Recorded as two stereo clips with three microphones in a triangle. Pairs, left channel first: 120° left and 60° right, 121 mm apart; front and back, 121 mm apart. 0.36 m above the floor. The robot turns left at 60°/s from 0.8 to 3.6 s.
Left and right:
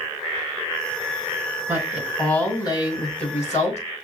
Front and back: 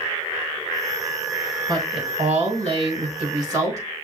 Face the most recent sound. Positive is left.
turn(degrees=120)